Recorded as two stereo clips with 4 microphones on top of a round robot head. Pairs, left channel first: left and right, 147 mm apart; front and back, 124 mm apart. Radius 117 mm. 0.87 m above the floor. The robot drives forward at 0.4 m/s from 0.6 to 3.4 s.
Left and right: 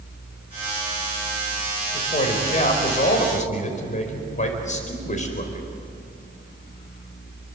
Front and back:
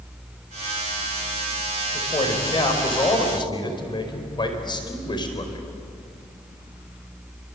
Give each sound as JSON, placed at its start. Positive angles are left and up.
{"t": 1.9, "sound": "a man speaking", "azimuth_deg": 50, "distance_m": 5.0}